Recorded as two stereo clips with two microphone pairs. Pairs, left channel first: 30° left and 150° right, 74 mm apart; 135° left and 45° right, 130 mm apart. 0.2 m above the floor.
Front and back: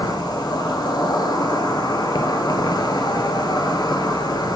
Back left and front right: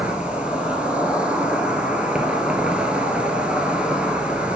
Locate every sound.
0.0 s an insect: 35° left, 1.0 m